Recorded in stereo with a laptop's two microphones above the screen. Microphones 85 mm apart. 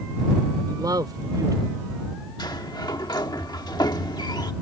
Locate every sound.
0.7 s a man speaking: 50° right (ahead or behind)
2.4 s a sliding door: 55° left (ahead or behind)